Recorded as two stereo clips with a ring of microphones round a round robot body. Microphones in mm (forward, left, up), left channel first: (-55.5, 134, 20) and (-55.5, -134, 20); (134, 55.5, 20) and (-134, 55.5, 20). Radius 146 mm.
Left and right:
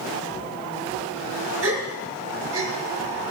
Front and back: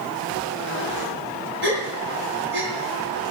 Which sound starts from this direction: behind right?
A gasp, at 1.6 s.